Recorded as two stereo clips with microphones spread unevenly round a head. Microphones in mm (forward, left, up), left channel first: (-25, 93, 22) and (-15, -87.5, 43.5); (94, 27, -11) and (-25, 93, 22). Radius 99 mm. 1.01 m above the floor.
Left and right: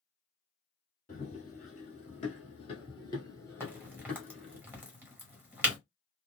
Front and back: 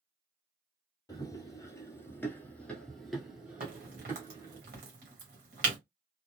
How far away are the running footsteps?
About 1.4 m.